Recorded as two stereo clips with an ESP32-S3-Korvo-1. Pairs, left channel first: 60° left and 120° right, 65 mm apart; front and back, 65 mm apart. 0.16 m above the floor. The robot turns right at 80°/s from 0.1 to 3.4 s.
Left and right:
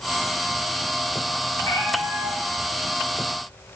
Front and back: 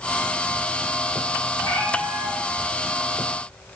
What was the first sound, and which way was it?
A cat meowing, 30° left.